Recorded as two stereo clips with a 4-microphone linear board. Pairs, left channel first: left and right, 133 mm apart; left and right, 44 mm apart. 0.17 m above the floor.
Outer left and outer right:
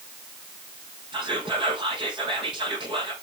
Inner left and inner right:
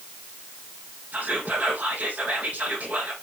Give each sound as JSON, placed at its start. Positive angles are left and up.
{"t": 1.1, "sound": "whispering", "side_deg": -40, "distance_m": 5.0}